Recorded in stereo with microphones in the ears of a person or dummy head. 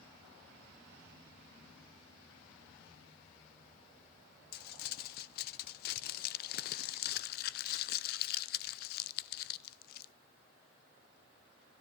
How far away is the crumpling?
About 0.6 m.